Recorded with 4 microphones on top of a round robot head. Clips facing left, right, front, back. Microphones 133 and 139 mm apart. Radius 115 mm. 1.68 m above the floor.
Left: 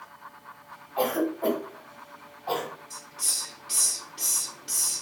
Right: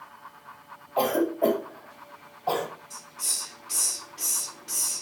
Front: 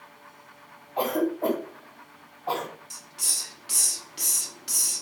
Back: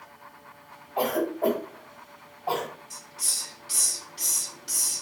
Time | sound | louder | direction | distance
1.0 | a cough | right 3 dB, front 1 dB | 100° right | 1.3 m
2.9 | a hiss | even, back 1 dB | 20° left | 0.5 m